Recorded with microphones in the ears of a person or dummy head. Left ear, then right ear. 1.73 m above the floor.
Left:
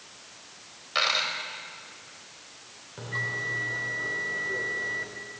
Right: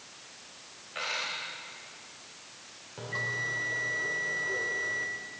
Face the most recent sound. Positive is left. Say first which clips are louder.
# left 2 dB
turn(degrees=-5)  # may be behind; listen again after turning